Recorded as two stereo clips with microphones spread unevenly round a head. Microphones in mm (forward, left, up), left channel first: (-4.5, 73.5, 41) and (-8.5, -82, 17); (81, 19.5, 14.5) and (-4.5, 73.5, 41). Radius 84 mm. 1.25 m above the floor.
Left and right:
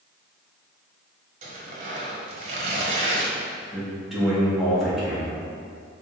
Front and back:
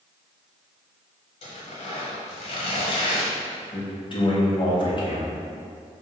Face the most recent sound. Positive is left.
turn(degrees=-5)